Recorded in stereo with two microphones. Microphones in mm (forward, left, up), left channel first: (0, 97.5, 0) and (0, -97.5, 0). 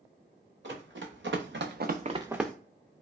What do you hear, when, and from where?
0.6 s running footsteps: 85° right, 1.4 m; by 2.5 s 5° left (ahead or behind), 0.5 m